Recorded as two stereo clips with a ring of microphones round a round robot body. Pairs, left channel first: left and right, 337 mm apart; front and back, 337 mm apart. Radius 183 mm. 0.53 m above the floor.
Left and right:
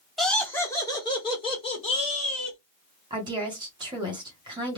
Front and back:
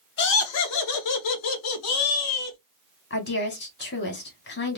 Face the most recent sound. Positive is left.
turn(degrees=-25)